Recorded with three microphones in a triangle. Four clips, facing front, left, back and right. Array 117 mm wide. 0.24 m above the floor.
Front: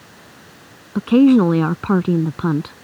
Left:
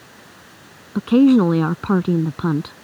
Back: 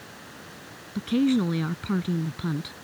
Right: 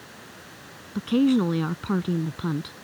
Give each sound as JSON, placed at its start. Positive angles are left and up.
{"t": 0.9, "sound": "a woman speaking", "azimuth_deg": 35}